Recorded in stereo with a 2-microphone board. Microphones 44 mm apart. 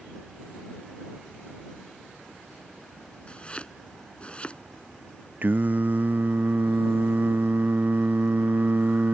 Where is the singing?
45° right (ahead or behind).